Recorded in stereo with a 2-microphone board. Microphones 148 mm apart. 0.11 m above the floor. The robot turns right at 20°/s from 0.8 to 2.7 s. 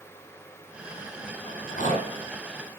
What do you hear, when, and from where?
1.5 s a rattle: 60° left (ahead or behind), 3.5 m; by 2.1 s 50° left (ahead or behind), 3.5 m